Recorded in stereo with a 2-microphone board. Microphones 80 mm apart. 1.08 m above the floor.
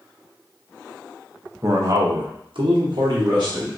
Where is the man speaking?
40° right (ahead or behind), 0.8 m; by 3.8 s 55° right (ahead or behind), 1.6 m.